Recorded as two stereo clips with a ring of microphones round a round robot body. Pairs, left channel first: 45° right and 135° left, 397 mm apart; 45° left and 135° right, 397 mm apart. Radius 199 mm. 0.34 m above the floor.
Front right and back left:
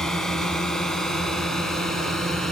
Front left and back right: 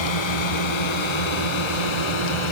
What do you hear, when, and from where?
0.0 s a drone: 45° left